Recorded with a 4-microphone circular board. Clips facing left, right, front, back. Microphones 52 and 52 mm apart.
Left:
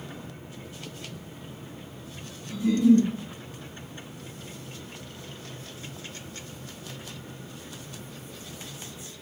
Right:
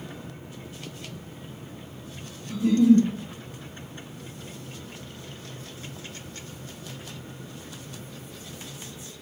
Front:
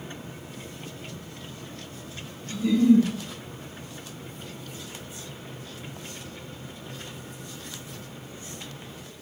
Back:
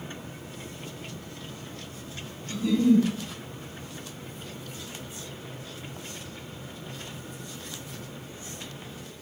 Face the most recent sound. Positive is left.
turn(degrees=-80)